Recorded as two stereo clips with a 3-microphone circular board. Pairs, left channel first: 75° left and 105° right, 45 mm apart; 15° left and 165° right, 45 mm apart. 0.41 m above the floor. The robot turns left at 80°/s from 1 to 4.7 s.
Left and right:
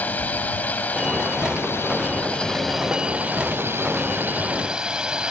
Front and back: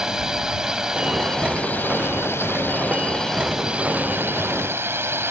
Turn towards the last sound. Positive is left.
turn(degrees=-175)